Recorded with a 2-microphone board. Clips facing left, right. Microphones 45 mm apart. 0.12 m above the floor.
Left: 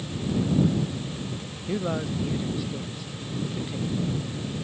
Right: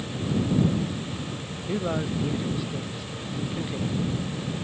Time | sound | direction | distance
1.7 | a man speaking | 5° right (ahead or behind) | ?